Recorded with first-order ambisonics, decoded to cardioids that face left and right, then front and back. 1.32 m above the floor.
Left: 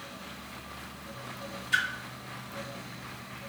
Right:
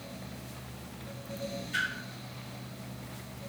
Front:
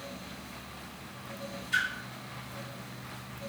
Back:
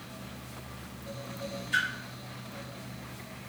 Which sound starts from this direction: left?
A splash, at 1.7 s.